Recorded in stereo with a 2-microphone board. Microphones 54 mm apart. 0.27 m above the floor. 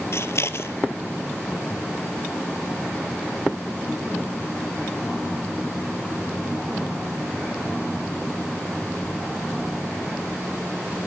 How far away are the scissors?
About 0.9 m.